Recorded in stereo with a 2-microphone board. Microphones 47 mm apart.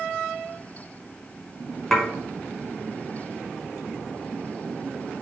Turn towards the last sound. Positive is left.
turn(degrees=5)  # may be behind; listen again after turning